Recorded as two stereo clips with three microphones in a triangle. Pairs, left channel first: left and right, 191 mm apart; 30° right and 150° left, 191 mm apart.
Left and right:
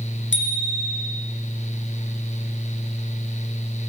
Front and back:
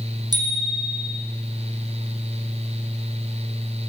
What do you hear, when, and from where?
0.3 s a bicycle bell: 80° left, 4 m